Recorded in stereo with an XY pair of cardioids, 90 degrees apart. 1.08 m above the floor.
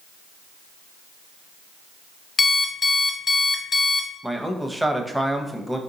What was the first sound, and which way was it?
An alarm clock, 45° left.